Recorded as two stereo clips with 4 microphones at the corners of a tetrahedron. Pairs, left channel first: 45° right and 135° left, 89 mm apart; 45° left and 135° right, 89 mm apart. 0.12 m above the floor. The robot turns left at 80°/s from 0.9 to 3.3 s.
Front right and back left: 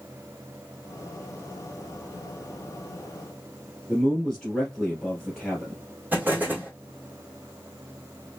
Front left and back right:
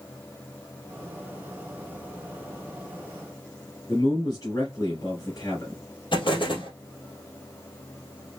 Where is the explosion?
65° left, 2.5 m.